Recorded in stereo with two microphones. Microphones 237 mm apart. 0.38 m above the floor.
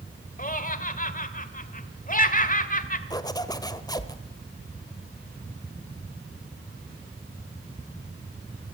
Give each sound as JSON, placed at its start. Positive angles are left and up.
{"t": 0.4, "sound": "laughter", "side_deg": 35, "distance_m": 1.6}
{"t": 3.1, "sound": "a zipper", "side_deg": 15, "distance_m": 1.0}